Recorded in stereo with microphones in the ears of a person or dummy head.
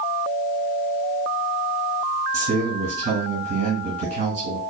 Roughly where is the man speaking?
Right.